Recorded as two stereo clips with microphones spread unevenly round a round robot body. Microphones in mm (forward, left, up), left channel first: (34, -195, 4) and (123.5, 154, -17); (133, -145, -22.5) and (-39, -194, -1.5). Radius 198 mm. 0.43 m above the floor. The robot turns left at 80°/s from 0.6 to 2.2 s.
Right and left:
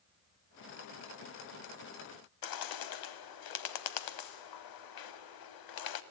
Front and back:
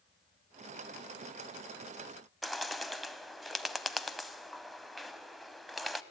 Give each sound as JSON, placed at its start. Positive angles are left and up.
{"t": 2.4, "sound": "a bird", "azimuth_deg": -75, "distance_m": 1.1}